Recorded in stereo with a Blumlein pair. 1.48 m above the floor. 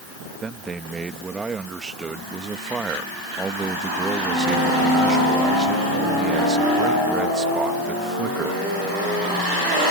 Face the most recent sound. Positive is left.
turn(degrees=-15)